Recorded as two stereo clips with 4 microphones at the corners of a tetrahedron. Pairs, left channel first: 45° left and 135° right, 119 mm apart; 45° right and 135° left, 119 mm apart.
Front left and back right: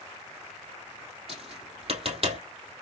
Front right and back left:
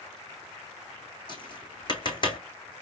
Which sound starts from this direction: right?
Tapping, at 1.3 s.